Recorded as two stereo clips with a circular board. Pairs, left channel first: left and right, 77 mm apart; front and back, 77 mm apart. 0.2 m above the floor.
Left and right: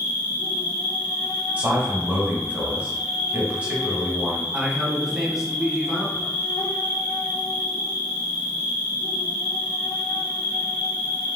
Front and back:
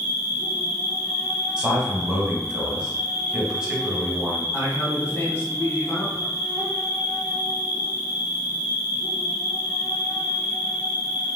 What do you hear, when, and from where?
0.0 s an insect: 115° left, 1.3 m
1.6 s a man speaking: 120° right, 1.0 m
4.5 s a man speaking: 5° right, 1.2 m